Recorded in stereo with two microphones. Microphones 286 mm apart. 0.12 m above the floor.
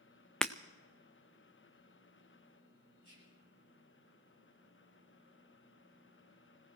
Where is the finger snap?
No finger snap in this recording.